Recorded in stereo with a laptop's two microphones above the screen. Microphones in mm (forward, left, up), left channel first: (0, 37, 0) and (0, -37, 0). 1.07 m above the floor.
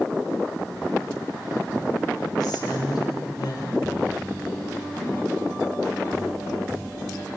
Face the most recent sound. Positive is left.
turn(degrees=70)  # may be behind; listen again after turning